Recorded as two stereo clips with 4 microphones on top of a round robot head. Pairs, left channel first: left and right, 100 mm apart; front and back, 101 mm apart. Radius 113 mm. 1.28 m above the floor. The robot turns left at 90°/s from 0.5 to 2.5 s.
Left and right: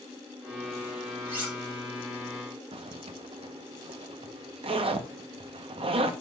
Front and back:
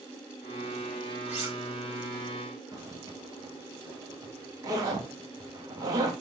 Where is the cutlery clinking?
150° right, 3.5 m; by 1.6 s straight behind, 3.5 m.